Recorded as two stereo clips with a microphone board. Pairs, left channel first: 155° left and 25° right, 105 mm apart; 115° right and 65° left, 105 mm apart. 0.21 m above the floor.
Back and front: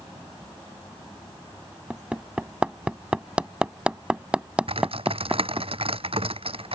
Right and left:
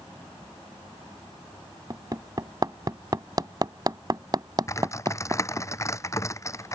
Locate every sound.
1.9 s hammering: 50° left
4.7 s typing on a keyboard: 50° right